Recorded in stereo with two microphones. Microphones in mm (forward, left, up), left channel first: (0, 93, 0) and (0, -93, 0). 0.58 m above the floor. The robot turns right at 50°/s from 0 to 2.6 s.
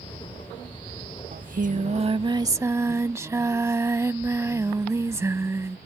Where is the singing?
85° right; by 5.8 s 20° right.